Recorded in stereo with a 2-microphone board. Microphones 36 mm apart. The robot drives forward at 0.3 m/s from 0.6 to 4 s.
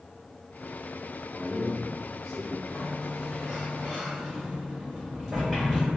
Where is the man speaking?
5° left (ahead or behind), 1.4 m; by 2.5 s centre (ahead or behind), 1.7 m.